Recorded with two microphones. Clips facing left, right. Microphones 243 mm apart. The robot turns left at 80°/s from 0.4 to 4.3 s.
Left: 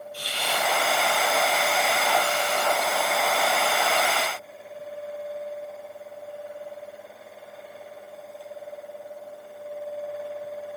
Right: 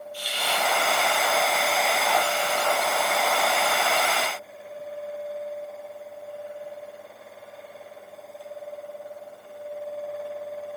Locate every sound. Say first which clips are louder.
0.1 s a hiss: even; 70° left (ahead or behind), 3.5 m; by 0.7 s 50° left (ahead or behind), 3.5 m